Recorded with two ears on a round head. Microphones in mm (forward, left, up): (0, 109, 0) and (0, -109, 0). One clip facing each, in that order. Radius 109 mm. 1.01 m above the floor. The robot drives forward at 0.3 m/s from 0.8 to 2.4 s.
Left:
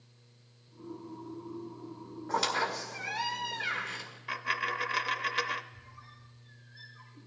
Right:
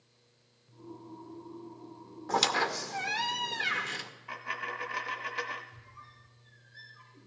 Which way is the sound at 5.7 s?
20° right (ahead or behind).